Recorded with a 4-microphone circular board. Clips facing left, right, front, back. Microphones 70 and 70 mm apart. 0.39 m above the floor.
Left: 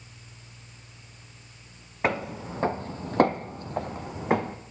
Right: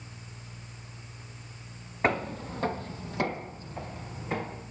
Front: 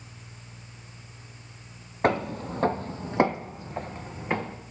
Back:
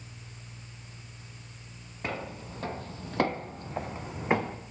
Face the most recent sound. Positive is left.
turn(degrees=110)